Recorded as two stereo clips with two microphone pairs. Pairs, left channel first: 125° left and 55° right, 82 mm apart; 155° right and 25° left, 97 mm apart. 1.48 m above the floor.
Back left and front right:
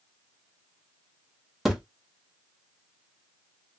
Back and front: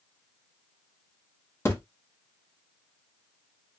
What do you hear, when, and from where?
1.6 s a thud: 140° right, 0.9 m